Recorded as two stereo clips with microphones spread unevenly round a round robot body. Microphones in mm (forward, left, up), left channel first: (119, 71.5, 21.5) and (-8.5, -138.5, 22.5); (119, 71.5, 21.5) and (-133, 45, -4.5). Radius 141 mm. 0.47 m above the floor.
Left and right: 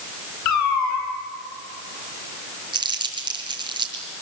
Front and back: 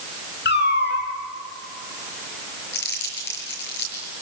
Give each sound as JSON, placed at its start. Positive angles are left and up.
{"t": 0.5, "sound": "a cat meowing", "azimuth_deg": 55, "distance_m": 3.0}
{"t": 2.7, "sound": "crumpling", "azimuth_deg": -50, "distance_m": 7.0}